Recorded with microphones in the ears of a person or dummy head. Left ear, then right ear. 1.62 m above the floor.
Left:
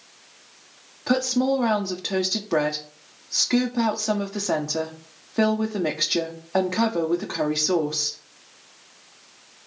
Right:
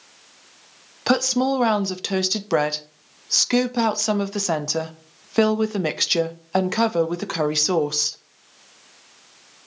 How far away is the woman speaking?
About 0.5 m.